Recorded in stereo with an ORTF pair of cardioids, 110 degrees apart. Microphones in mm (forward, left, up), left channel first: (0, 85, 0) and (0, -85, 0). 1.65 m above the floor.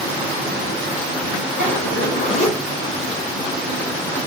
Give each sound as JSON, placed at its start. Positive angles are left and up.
{"t": 1.6, "sound": "a zipper", "azimuth_deg": 50, "distance_m": 1.7}